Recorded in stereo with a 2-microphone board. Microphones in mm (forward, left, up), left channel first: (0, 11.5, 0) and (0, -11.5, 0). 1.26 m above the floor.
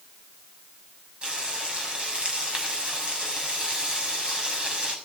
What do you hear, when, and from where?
1.2 s frying: 50° right (ahead or behind), 6 m